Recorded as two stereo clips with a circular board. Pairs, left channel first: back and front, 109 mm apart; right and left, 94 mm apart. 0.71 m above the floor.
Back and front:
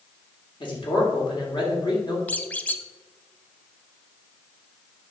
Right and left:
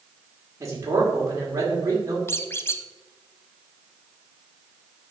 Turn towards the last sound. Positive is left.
turn(degrees=-120)